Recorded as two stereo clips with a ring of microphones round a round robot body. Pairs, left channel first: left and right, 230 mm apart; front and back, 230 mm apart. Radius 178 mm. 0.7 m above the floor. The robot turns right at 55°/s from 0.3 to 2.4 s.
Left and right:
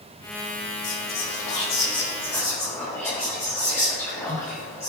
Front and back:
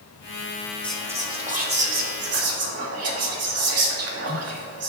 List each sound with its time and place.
0.8 s whispering: 85° left, 1.9 m; by 4.9 s 170° left, 1.9 m